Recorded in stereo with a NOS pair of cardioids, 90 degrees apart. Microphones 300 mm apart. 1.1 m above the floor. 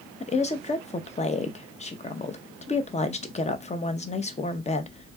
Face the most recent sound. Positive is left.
turn(degrees=20)